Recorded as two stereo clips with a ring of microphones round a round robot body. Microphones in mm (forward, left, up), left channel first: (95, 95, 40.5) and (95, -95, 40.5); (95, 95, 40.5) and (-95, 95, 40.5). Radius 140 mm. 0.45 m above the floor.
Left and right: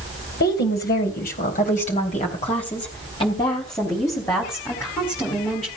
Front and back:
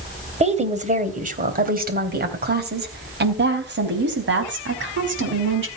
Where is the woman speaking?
130° left, 3 m; by 5.7 s 175° left, 5 m.